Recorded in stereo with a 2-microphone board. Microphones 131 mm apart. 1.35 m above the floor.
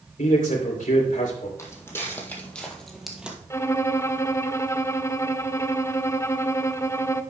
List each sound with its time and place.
0.2 s a man speaking: 85° left, 3.5 m
1.6 s footsteps: 20° left (ahead or behind), 2.5 m; by 3.4 s 10° right (ahead or behind), 1.5 m
3.5 s a violin: 20° left (ahead or behind), 0.5 m